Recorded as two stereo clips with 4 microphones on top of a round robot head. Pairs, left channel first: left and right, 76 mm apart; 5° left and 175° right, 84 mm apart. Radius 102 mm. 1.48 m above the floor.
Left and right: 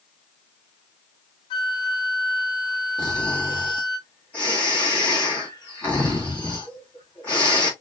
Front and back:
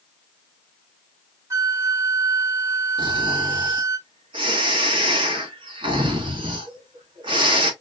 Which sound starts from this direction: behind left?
A flute, at 1.5 s.